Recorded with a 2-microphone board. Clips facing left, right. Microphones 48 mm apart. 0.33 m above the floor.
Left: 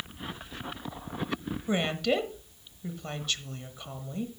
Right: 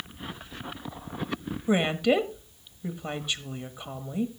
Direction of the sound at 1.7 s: 15° right (ahead or behind).